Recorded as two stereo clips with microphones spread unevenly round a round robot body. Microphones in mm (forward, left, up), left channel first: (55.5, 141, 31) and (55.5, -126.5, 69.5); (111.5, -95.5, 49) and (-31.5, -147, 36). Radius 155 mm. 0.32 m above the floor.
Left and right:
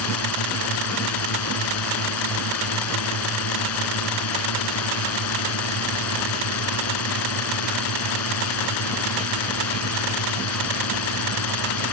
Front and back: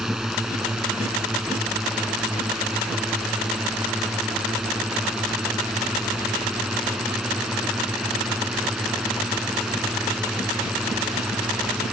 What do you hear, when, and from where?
0.0 s a drone: 110° left